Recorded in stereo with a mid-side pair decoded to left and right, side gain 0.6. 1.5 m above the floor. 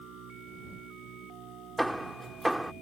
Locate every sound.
0.0 s a machine running: 60° right
1.8 s hammering: 5° right